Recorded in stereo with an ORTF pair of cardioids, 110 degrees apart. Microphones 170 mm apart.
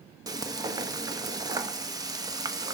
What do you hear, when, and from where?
0.3 s frying: 20° right, 1.0 m